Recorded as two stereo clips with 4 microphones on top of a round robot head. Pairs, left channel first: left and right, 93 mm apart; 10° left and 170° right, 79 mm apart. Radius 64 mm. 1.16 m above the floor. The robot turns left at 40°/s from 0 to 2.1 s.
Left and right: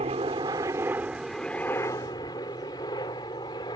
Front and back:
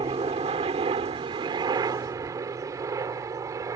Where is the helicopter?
125° right; by 3.8 s 145° left.